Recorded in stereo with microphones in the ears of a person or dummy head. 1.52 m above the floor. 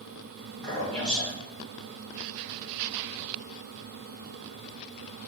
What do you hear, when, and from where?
0.6 s a man speaking: centre (ahead or behind), 2.0 m